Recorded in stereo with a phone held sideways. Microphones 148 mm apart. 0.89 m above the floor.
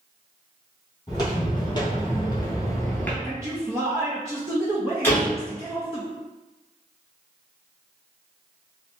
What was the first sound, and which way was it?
Footsteps, 30° left (ahead or behind).